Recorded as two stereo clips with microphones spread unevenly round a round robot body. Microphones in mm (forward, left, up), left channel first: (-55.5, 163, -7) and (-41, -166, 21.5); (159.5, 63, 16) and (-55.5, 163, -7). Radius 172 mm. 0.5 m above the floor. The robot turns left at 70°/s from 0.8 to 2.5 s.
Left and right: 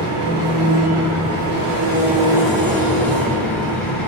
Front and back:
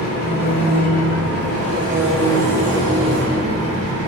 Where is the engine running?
60° right, 2.5 m; by 4.1 s straight behind, 2.5 m.